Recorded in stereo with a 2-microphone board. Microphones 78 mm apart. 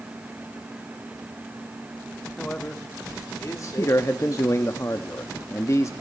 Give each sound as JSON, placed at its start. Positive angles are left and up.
{"t": 2.4, "sound": "a man speaking", "side_deg": 10, "distance_m": 1.2}
{"t": 3.8, "sound": "a man speaking", "side_deg": 35, "distance_m": 0.8}